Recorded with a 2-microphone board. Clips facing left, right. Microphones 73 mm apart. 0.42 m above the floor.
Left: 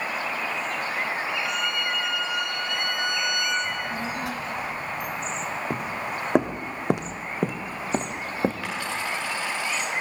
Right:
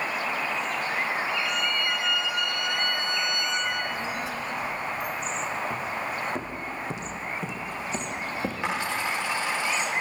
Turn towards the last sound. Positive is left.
turn(degrees=-20)  # may be behind; listen again after turning